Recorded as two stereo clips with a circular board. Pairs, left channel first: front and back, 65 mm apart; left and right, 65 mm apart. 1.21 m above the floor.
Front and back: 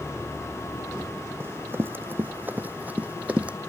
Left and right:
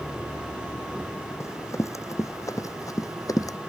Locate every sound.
1.4 s running footsteps: 130° left; by 3.6 s 110° left